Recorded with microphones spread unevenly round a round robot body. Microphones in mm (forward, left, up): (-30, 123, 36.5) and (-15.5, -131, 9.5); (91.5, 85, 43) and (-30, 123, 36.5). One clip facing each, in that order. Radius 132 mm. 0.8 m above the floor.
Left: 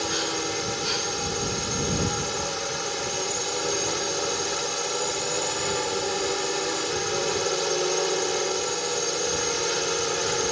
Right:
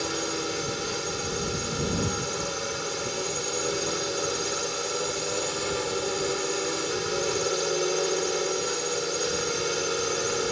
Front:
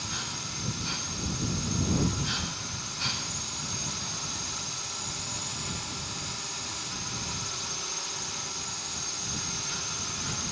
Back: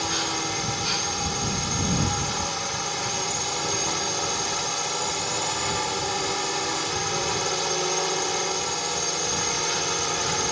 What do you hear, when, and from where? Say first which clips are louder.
0.0 s a drone: left 1 dB, back 12 dB; 175° right